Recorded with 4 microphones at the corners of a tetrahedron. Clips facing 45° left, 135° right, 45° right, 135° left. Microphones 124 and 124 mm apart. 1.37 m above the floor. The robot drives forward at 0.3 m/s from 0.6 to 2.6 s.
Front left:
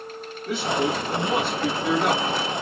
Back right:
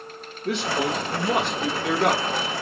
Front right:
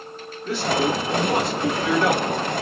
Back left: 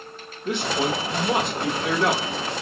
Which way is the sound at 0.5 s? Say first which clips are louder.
Front left 1 dB, front right 2 dB; 155° right.